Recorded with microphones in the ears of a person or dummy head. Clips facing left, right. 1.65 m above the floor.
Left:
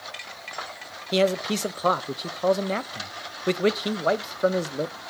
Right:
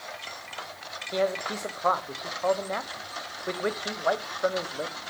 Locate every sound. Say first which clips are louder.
1.1 s a man speaking: left 5 dB; 45° left (ahead or behind), 1.0 m